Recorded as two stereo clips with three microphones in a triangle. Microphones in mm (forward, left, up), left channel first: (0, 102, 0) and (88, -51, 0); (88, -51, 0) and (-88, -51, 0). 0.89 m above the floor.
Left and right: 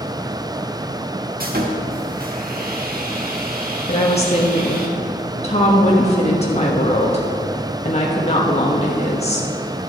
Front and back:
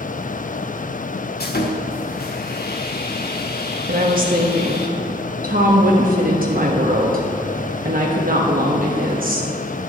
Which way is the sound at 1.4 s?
25° right.